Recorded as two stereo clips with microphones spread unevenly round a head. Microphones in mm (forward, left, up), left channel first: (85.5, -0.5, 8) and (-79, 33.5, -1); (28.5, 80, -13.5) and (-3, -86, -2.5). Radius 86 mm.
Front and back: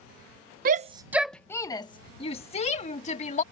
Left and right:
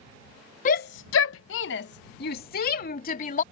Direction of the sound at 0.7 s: 130° left.